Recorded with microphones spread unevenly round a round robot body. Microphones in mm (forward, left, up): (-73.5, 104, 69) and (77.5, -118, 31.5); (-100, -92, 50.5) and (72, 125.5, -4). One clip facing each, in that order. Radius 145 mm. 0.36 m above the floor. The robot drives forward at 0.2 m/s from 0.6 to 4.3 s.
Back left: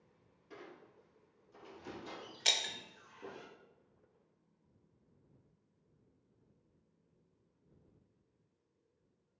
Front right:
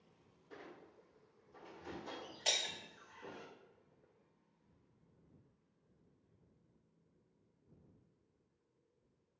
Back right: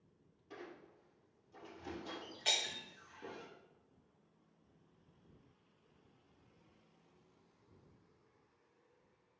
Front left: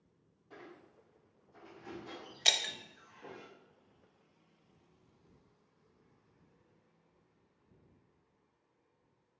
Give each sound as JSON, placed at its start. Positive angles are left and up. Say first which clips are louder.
{"t": 0.5, "sound": "a squeak", "louder": "back left 1 dB, back right 1 dB", "azimuth_deg": 180, "distance_m": 1.5}
{"t": 2.5, "sound": "breaking glass", "louder": "front right 1 dB, front left 4 dB", "azimuth_deg": 65, "distance_m": 0.5}